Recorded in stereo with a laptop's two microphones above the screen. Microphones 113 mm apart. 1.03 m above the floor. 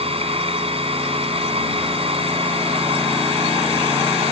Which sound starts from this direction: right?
A machine running, at 0.0 s.